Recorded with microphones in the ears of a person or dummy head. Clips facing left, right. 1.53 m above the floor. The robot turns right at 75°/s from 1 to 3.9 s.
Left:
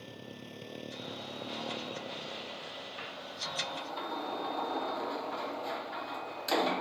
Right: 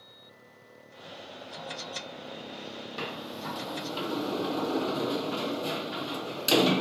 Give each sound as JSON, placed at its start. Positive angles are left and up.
{"t": 0.0, "sound": "a motorcycle", "azimuth_deg": 95}
{"t": 3.0, "sound": "a sliding door", "side_deg": -50}